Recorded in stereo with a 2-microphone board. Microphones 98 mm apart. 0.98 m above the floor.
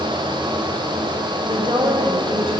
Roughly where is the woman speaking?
Right.